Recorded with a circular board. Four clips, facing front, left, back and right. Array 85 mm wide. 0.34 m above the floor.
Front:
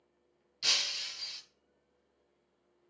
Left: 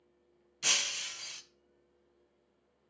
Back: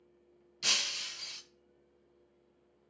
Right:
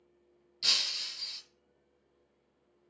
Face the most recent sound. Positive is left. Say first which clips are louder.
# left 3 dB, back 1 dB
turn(degrees=110)